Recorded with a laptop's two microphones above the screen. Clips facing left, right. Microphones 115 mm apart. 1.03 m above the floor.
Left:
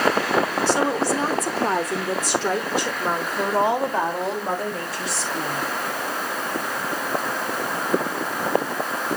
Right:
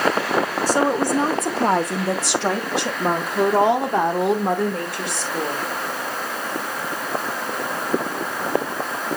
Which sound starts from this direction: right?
A woman speaking, at 0.7 s.